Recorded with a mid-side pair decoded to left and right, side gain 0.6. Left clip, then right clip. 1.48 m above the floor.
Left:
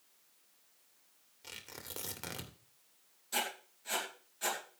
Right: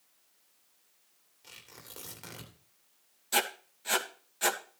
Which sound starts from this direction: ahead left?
Tearing paper, at 1.4 s.